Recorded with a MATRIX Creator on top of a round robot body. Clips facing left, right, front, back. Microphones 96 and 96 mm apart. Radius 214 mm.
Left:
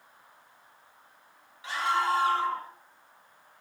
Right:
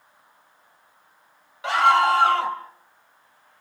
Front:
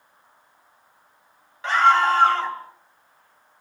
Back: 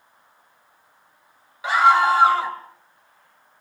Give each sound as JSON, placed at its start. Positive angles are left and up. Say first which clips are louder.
{"t": 1.6, "sound": "a scream", "louder": "right 10 dB, back 1 dB", "azimuth_deg": -100, "distance_m": 3.5}